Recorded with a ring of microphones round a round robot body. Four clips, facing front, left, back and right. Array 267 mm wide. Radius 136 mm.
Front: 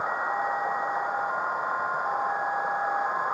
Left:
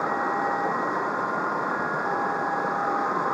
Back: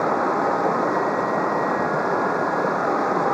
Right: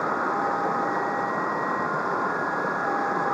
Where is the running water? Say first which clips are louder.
Even, back 8 dB; straight behind.